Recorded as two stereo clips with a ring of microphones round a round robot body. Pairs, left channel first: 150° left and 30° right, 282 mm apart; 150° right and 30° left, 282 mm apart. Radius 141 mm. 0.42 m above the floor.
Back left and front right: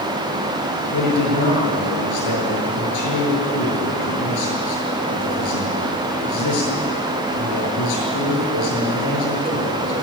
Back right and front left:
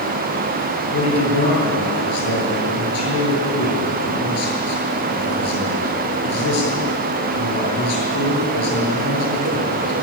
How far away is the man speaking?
About 8 m.